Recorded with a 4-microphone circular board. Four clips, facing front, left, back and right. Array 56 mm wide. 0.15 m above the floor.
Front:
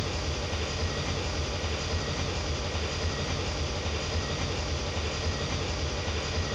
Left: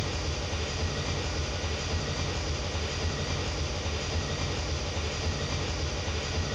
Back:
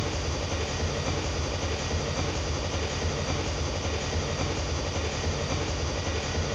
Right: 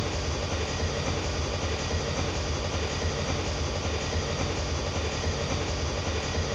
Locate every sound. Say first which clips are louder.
0.0 s an engine running: right 3 dB, back 2 dB; 135° right, 2 m